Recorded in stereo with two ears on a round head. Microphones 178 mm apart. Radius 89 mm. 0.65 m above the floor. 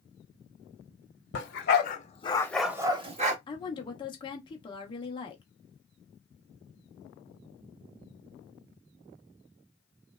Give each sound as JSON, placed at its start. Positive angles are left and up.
{"t": 1.3, "sound": "a dog barking", "side_deg": 60, "distance_m": 0.9}
{"t": 3.5, "sound": "a woman speaking", "side_deg": 25, "distance_m": 0.6}